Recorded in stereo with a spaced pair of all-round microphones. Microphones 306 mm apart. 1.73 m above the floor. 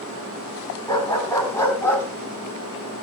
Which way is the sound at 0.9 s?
15° left (ahead or behind).